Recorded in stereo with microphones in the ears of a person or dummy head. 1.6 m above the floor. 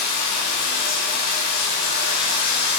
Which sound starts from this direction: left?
Running water, at 0.0 s.